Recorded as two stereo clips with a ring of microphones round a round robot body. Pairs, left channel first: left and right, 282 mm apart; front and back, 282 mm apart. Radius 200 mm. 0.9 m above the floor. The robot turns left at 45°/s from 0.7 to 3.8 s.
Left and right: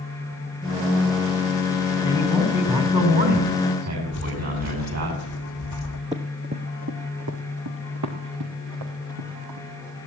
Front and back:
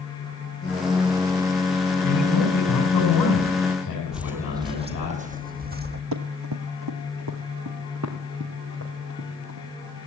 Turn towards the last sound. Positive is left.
turn(degrees=-115)